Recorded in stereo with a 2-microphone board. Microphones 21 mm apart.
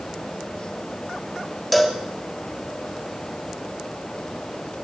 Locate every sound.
1.7 s a cowbell: 5° left (ahead or behind), 3 m